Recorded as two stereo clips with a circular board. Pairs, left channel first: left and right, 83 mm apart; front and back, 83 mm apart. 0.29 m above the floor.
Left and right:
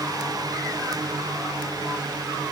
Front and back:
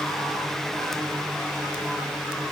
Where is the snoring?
I don't hear snoring.